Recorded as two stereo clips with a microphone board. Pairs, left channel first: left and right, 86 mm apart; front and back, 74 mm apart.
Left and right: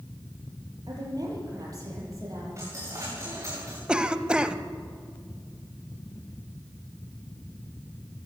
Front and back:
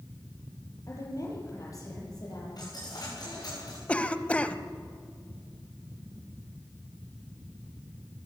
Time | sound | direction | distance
0.9 | a woman speaking | 50° right | 7 m
2.6 | a dropped coin | 35° right | 8 m
3.9 | a cough | 35° right | 0.9 m